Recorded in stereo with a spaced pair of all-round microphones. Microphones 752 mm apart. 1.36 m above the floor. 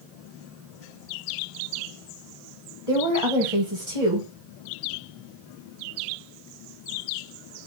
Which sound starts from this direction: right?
A woman speaking, at 2.9 s.